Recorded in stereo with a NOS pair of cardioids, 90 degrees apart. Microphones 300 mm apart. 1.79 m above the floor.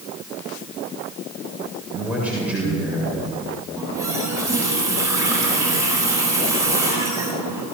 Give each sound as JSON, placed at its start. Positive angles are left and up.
{"t": 1.9, "sound": "a man speaking", "azimuth_deg": -5, "distance_m": 7.5}
{"t": 3.8, "sound": "a running tap", "azimuth_deg": -10, "distance_m": 9.0}